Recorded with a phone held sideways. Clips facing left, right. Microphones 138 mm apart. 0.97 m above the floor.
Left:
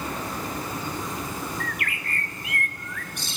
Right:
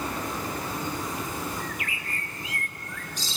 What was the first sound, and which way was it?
A bird, 60° left (ahead or behind).